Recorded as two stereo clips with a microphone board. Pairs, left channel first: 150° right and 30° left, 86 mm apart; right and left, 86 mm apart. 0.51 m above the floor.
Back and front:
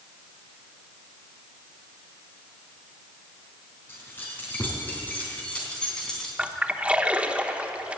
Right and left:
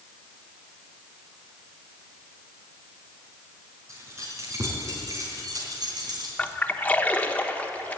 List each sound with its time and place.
3.9 s keys jangling: 145° left, 4 m; by 6.3 s 125° left, 3 m
6.4 s a splash: 35° right, 0.9 m